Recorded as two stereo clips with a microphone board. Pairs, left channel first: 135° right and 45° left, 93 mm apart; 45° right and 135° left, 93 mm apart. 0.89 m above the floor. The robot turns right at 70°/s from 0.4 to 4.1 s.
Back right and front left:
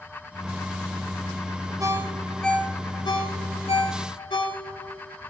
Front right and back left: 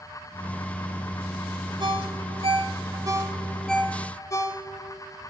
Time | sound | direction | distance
1.8 | a ringtone | 100° left | 1.9 m